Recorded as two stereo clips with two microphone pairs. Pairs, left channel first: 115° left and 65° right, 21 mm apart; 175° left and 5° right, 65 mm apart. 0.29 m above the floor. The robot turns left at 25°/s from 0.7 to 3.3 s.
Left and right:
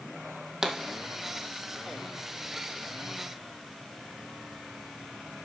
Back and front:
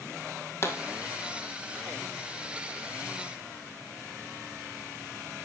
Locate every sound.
0.6 s a pop: 135° right, 2.0 m